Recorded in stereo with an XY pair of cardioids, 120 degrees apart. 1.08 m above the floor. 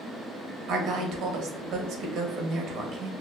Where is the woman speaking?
70° right, 0.8 m.